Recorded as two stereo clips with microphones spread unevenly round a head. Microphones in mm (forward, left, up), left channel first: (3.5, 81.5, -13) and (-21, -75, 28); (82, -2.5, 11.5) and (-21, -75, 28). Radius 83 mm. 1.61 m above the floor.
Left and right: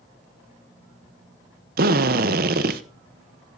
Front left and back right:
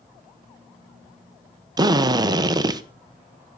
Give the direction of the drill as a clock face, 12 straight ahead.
3 o'clock.